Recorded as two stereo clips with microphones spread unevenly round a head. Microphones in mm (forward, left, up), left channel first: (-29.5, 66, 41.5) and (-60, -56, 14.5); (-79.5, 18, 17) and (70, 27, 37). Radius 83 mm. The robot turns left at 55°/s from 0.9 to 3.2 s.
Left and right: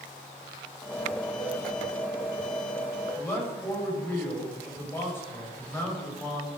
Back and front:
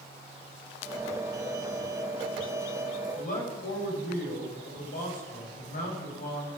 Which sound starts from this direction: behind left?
A man speaking, at 3.1 s.